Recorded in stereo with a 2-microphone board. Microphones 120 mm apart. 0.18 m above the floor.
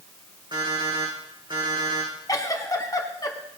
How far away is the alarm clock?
About 6.5 m.